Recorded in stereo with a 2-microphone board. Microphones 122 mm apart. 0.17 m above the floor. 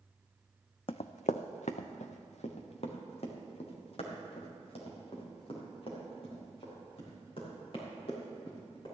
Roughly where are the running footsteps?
Left.